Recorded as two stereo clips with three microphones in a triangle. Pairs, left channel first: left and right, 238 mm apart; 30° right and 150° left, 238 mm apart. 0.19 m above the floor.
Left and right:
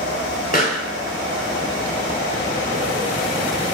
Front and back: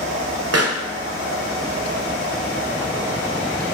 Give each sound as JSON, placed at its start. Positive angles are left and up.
{"t": 0.5, "sound": "a pop", "azimuth_deg": 140, "distance_m": 0.6}